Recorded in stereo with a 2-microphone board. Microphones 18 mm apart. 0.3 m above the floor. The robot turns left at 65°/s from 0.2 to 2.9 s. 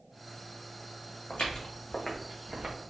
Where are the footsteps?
75° left (ahead or behind), 1.0 m; by 2.8 s 50° right (ahead or behind), 1.3 m.